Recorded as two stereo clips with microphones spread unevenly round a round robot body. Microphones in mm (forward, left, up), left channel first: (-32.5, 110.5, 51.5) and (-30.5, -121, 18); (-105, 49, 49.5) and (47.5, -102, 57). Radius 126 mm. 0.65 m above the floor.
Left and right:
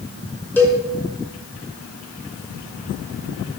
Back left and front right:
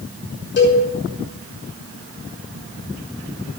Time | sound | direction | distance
0.6 | a cowbell | 170° left | 6 m